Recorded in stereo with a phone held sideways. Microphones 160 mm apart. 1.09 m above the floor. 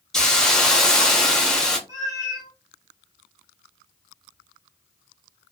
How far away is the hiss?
About 0.6 m.